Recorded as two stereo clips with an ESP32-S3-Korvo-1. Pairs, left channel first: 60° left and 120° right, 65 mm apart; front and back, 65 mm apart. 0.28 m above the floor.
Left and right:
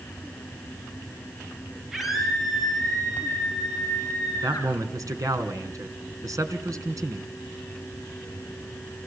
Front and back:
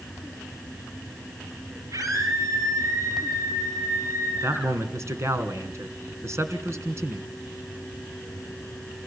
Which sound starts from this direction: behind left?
A scream, at 1.9 s.